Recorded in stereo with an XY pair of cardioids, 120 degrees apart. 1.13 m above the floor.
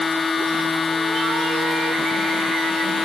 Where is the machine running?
20° left.